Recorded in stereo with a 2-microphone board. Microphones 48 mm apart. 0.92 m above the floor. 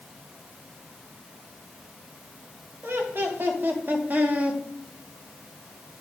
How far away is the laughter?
About 1.9 m.